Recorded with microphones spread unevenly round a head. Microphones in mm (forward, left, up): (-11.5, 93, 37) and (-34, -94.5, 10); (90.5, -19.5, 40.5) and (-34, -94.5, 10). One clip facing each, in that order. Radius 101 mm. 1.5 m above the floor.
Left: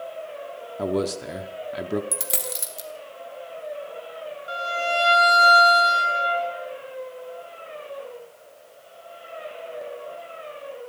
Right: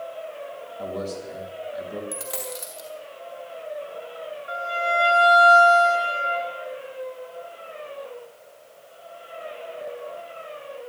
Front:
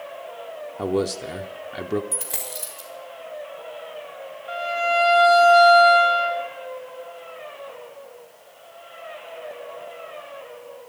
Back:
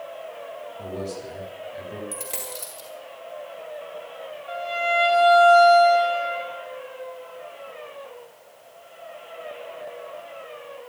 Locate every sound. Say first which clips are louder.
0.8 s a man speaking: left 6 dB, front 10 dB; 55° left, 0.9 m
2.1 s a dropped coin: even, even; 125° left, 1.7 m
4.5 s a violin: even, front 2 dB; 125° left, 2 m